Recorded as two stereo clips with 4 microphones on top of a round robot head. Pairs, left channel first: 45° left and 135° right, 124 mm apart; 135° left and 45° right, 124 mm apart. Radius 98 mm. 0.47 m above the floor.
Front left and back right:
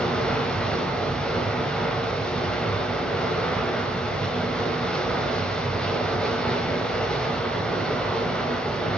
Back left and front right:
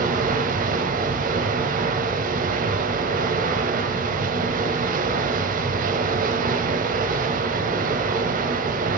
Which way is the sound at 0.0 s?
40° right.